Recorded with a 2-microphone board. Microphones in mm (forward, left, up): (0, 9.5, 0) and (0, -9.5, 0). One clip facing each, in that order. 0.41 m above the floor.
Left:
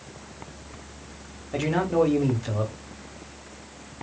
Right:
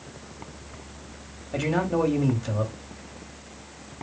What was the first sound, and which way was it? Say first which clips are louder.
A man speaking: left 2 dB; 5° left (ahead or behind).